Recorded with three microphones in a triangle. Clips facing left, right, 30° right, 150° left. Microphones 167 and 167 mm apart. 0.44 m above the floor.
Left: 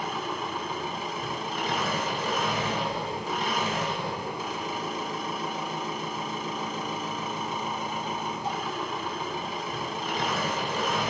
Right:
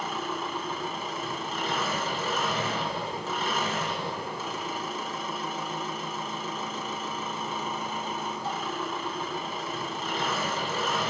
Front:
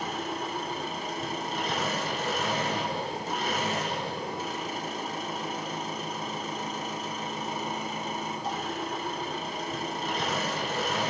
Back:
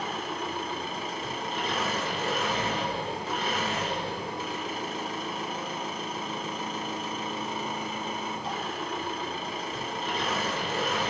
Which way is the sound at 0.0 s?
15° left.